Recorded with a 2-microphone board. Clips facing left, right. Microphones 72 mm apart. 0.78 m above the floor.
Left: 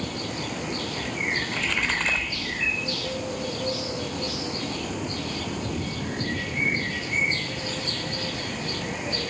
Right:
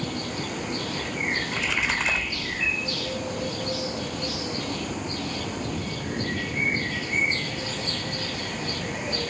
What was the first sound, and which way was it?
A splash, 5° right (ahead or behind).